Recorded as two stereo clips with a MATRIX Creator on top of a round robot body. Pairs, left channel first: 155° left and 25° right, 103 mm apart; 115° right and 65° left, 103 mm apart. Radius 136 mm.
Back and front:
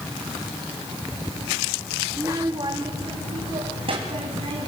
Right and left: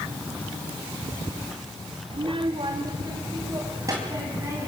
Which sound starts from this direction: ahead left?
A child speaking, at 2.1 s.